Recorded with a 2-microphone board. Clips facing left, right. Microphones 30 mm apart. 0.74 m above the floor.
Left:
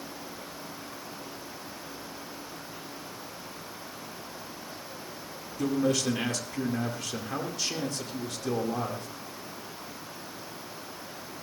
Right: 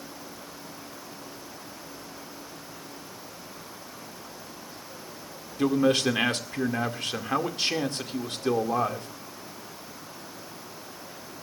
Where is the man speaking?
50° right (ahead or behind), 2.0 m.